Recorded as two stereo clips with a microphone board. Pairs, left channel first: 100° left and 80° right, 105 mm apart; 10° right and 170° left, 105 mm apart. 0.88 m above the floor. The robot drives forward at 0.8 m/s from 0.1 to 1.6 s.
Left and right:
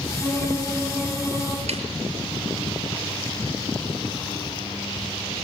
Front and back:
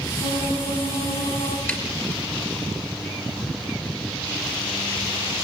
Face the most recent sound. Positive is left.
turn(degrees=-85)